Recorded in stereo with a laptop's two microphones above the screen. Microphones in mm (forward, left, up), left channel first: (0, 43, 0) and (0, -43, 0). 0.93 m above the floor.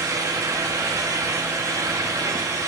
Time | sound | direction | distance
0.0 | a fan | 40° right (ahead or behind) | 0.8 m